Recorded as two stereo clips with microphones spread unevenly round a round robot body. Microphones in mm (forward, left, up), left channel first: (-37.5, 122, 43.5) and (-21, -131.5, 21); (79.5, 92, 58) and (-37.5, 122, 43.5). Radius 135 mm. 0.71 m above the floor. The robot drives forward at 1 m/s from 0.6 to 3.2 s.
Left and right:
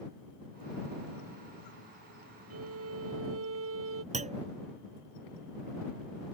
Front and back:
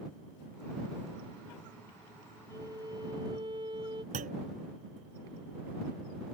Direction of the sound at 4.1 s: 150° right.